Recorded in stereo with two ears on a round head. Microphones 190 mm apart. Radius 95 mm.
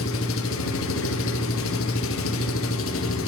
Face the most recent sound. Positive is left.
turn(degrees=70)  # may be behind; listen again after turning